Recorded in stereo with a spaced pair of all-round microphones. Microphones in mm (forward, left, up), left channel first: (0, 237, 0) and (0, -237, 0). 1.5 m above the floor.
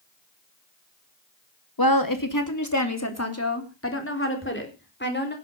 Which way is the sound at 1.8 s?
50° left (ahead or behind).